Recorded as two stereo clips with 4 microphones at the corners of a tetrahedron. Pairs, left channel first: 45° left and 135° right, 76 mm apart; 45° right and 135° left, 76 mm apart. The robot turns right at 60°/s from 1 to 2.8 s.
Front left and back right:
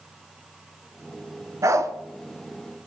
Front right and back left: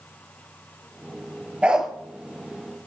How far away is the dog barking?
About 0.6 m.